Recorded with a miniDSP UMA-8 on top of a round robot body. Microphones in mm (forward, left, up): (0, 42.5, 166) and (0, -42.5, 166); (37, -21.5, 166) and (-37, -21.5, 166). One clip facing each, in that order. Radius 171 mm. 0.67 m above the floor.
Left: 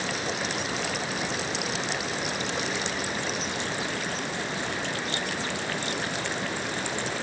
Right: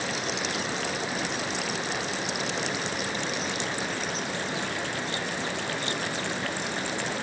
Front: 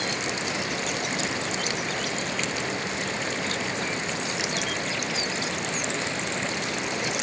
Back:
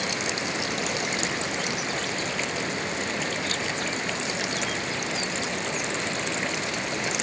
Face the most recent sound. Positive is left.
No sound to turn to.